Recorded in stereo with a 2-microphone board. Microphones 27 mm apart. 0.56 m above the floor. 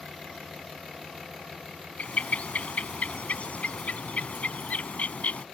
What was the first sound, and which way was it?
A bird, 70° left (ahead or behind).